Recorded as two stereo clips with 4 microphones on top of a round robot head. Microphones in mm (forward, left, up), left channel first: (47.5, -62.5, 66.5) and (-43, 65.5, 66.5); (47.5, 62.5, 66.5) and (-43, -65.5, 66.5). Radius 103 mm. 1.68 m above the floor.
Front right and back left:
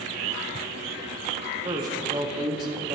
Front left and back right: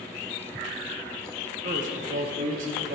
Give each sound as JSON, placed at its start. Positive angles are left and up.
{"t": 1.6, "sound": "a man speaking", "azimuth_deg": -170, "distance_m": 1.3}